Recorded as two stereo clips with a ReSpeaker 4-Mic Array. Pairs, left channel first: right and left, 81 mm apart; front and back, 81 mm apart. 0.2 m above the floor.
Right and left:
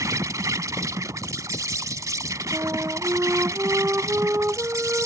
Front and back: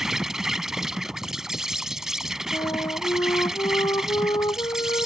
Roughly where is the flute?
Ahead left.